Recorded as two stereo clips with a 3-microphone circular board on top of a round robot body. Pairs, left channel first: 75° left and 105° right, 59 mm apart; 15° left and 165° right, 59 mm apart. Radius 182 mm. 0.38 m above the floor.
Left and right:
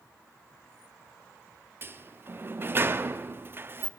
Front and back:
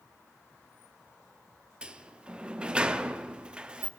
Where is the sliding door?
105° right, 0.7 m.